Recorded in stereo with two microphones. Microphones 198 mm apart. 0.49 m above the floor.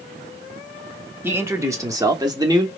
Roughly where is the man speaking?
Centre.